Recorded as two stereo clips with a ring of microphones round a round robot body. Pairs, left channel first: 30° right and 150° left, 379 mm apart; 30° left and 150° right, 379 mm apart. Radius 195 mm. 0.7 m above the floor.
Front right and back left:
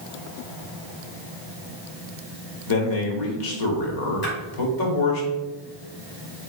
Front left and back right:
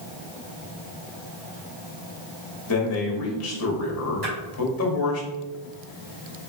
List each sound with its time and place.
2.7 s a man speaking: 15° right, 1.4 m
4.2 s a splash: 90° right, 2 m